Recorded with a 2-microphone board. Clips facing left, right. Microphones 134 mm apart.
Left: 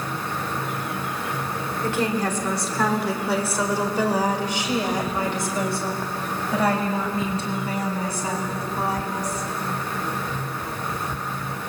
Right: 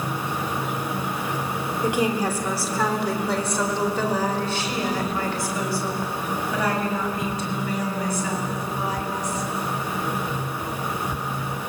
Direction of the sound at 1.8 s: 15° right (ahead or behind).